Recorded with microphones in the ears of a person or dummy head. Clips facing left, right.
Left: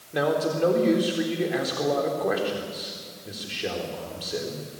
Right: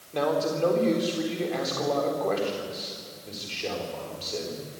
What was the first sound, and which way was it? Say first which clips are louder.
A man speaking: left 1 dB; 10° left (ahead or behind).